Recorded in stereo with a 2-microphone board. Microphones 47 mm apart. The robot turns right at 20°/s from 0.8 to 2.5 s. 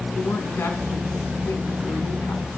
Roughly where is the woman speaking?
Left.